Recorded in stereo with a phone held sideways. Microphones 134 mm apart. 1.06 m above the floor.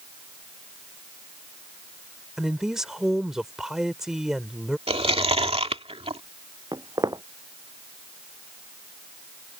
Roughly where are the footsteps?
Right.